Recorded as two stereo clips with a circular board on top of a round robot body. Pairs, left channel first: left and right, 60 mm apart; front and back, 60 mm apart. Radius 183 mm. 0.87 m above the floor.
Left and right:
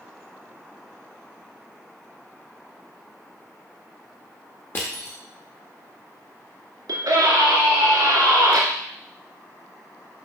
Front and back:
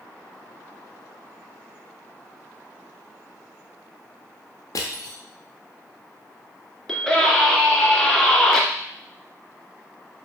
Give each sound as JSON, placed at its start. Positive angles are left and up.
{"t": 4.8, "sound": "crushing", "azimuth_deg": 35, "distance_m": 0.5}
{"t": 6.9, "sound": "a scream", "azimuth_deg": -85, "distance_m": 2.5}